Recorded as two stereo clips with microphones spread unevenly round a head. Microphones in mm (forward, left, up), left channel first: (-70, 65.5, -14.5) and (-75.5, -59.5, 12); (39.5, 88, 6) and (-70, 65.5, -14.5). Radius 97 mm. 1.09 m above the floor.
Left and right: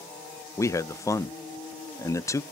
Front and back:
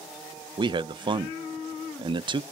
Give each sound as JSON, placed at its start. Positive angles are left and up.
{"t": 0.6, "sound": "a man speaking", "azimuth_deg": 150, "distance_m": 0.5}